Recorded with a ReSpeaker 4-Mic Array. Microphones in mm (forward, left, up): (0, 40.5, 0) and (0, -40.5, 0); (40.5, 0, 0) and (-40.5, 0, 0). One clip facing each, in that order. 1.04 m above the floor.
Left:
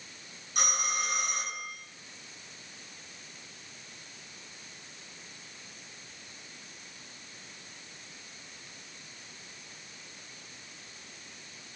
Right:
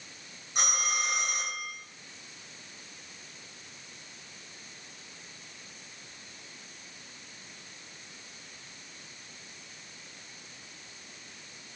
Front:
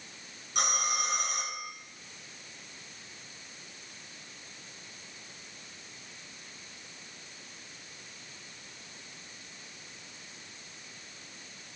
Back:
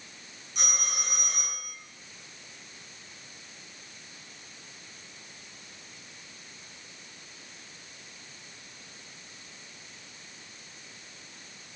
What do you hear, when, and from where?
0.6 s a phone ringing: 20° right, 6.5 m